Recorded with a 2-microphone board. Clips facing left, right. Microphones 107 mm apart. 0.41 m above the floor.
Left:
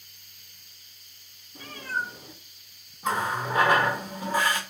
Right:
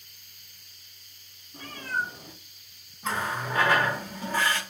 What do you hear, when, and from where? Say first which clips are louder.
1.5 s a cat meowing: right 1 dB; 50° right (ahead or behind), 2 m
3.0 s a running tap: left 3 dB; 15° left (ahead or behind), 0.8 m